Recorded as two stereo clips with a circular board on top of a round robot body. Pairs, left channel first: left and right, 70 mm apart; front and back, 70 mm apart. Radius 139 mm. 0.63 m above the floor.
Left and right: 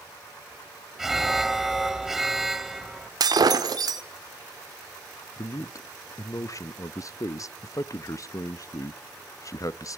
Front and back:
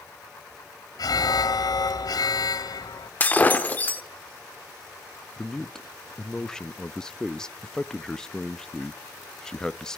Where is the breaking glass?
65° right, 1.4 m.